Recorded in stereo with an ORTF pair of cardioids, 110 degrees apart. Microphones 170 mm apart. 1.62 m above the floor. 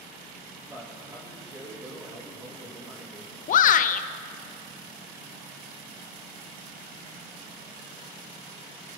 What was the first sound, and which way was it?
A man speaking, 10° right.